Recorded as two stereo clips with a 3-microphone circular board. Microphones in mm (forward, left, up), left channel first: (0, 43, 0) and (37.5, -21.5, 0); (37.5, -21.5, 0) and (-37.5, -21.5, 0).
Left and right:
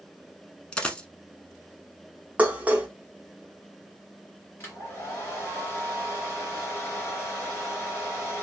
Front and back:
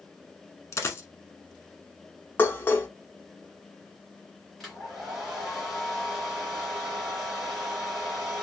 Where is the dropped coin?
45° left, 0.7 m.